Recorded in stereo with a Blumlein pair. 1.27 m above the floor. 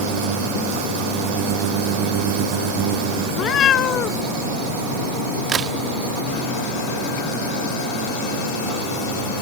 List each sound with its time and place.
3.3 s a cat meowing: 30° left
5.5 s a crack: 25° right